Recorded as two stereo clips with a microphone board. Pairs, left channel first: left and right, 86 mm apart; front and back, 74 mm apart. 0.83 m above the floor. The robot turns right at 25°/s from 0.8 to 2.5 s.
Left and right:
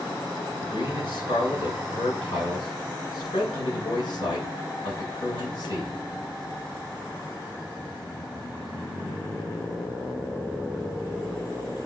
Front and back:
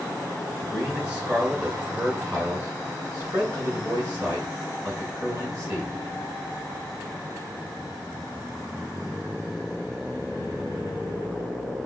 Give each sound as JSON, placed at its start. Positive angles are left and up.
{"t": 0.6, "sound": "a man speaking", "azimuth_deg": 90, "distance_m": 9.5}